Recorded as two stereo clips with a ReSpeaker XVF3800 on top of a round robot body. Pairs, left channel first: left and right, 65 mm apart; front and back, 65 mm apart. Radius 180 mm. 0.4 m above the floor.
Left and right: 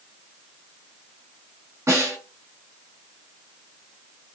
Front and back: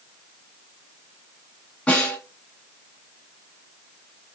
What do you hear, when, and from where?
1.9 s a snare drum: 70° right, 1.8 m